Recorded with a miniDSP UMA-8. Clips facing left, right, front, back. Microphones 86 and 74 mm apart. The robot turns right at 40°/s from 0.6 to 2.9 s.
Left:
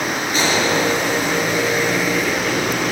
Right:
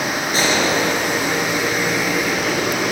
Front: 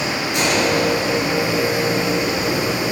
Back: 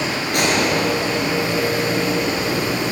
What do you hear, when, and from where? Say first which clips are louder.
0.3 s a gunshot: even, even; 145° right, 3.5 m; by 0.9 s 135° right, 3.5 m